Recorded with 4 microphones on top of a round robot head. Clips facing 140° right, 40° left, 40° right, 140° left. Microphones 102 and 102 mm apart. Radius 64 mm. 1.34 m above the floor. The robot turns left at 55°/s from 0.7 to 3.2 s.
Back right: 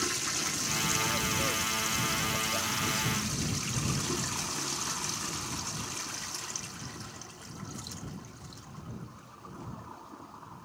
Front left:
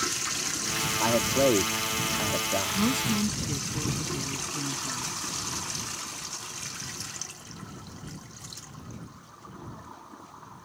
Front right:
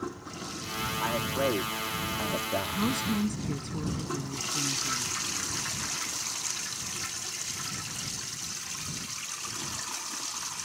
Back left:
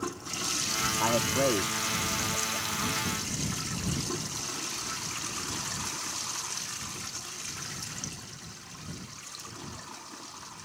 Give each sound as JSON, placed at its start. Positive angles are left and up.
{"t": 1.0, "sound": "a man speaking", "azimuth_deg": 80}
{"t": 2.8, "sound": "a woman speaking", "azimuth_deg": 15}